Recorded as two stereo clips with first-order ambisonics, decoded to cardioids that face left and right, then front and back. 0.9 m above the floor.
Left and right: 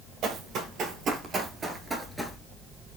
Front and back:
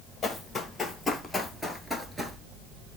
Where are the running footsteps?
65° right, 1.3 m; by 2.4 s 170° left, 0.8 m.